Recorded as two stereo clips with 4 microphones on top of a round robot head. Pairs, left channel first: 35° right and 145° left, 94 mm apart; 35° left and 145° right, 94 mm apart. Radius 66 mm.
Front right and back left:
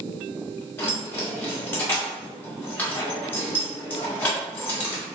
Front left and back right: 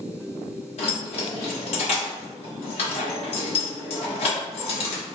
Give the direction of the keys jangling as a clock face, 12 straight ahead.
11 o'clock.